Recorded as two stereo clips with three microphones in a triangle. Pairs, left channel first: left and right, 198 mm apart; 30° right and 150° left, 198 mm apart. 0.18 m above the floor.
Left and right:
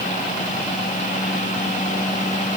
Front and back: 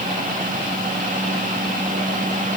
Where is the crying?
No crying in this recording.